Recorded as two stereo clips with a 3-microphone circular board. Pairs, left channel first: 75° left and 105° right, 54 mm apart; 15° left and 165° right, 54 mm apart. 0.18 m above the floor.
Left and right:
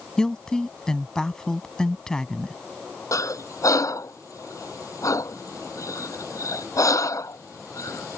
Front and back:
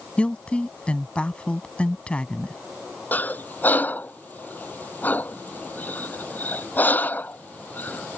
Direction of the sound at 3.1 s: 75° left.